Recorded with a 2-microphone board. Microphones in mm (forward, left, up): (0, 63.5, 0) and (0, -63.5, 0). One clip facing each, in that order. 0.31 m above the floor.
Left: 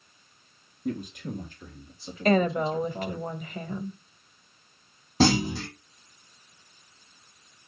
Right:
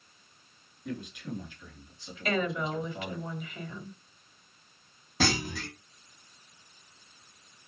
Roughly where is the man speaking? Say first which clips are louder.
Left 5 dB; left.